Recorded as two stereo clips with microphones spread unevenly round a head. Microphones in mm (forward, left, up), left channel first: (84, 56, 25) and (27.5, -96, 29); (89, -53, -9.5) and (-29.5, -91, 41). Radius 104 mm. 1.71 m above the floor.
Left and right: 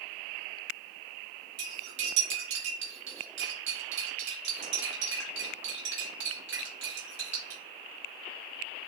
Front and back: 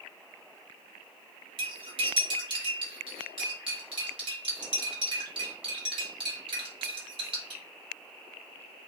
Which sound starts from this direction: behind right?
Cutlery clinking, at 1.6 s.